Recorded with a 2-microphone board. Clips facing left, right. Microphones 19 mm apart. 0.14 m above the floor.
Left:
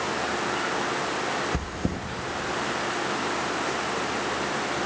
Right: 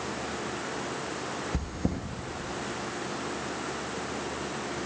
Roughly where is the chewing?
Centre.